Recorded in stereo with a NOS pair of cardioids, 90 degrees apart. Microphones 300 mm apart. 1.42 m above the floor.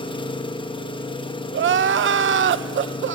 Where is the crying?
40° right, 0.9 m.